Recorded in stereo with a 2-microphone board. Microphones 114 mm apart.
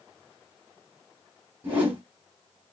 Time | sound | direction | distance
1.6 | a whoosh | 15° right (ahead or behind) | 3 m